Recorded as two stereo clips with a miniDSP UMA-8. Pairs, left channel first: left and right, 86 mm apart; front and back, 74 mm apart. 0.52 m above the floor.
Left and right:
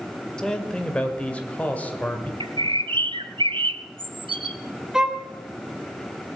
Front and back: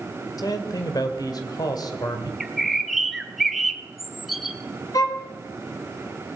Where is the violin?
10° right, 2.5 m.